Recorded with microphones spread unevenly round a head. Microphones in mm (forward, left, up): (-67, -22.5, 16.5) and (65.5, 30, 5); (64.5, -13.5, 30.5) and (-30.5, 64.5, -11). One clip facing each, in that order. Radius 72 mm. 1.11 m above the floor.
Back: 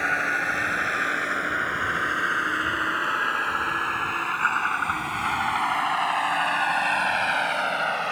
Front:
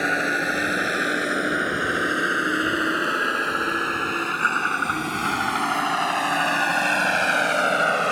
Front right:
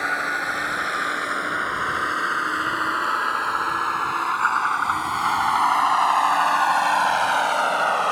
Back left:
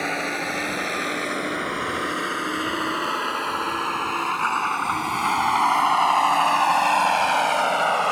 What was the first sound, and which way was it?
A vehicle, 70° left.